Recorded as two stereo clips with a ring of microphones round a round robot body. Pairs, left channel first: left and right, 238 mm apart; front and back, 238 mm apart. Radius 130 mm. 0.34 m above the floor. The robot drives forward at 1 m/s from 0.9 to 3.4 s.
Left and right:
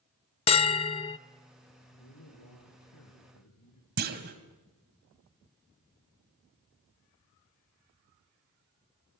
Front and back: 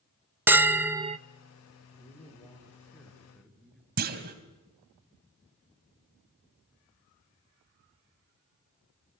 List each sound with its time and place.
0.5 s a bell: 110° left, 0.6 m; by 1.2 s 150° left, 0.7 m
2.0 s a man speaking: 75° left, 5.5 m; by 3.9 s 90° left, 5.5 m
4.0 s a clunk: 135° right, 1.8 m